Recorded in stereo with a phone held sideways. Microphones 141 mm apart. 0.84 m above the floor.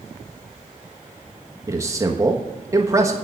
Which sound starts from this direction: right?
A man speaking, at 1.7 s.